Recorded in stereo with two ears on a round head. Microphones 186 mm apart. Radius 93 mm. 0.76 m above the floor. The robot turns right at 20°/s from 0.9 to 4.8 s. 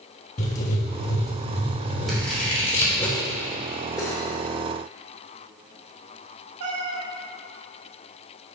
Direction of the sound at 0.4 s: 125° left.